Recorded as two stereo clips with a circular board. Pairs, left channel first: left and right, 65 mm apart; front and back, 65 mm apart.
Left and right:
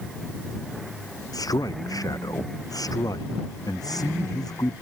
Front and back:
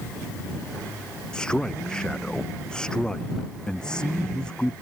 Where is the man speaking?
80° left.